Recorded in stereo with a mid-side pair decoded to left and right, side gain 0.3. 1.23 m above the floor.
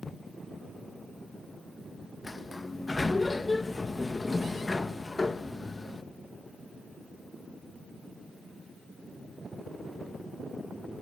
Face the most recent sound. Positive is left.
turn(degrees=35)